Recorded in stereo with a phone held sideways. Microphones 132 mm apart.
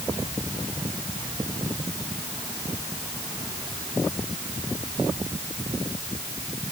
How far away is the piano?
I don't hear a piano.